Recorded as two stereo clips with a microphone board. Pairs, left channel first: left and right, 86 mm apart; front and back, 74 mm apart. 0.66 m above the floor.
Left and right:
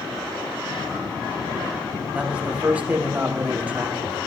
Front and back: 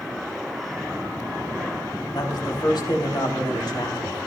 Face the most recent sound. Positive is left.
turn(degrees=-15)